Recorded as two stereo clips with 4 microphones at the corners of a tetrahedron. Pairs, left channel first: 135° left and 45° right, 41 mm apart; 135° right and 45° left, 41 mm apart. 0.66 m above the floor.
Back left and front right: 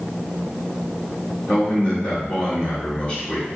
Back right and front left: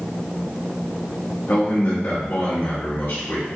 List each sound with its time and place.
1.5 s a man speaking: 170° right, 1.2 m